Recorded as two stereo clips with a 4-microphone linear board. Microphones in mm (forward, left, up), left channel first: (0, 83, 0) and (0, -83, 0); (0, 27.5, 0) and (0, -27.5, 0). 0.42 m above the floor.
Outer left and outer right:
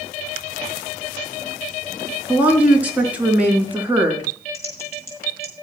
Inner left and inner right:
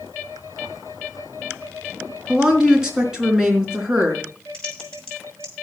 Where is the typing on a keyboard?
15° left (ahead or behind), 5.5 m.